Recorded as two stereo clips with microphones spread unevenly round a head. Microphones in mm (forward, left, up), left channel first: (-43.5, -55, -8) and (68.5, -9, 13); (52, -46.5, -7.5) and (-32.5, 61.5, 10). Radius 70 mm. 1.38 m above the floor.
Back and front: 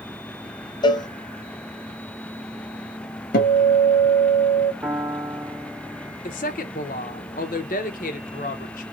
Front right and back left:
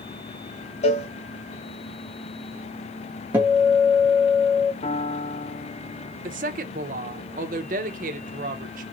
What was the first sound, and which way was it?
A cowbell, 100° right.